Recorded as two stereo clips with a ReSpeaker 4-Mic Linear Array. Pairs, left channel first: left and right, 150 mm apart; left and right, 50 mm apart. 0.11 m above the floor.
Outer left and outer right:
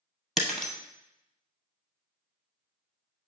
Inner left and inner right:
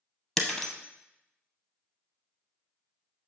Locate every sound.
0.4 s breaking glass: 5° left (ahead or behind), 1.1 m